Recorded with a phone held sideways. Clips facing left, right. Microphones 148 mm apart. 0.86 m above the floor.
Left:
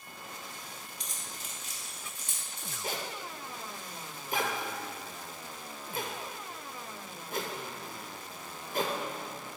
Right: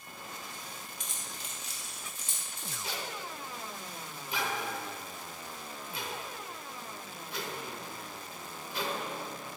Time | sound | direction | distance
1.0 | keys jangling | 35° left (ahead or behind) | 1.0 m
2.8 | a zipper | 50° left (ahead or behind) | 0.7 m